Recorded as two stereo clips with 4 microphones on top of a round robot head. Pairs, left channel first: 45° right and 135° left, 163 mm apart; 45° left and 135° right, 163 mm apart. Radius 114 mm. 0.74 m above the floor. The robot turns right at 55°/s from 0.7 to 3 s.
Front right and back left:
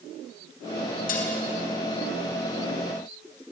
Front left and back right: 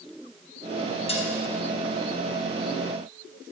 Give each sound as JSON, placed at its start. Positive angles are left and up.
{"t": 1.1, "sound": "dishes clattering", "azimuth_deg": -10, "distance_m": 4.5}